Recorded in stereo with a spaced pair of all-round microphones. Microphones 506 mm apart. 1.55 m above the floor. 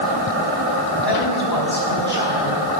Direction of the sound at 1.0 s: 50° left (ahead or behind).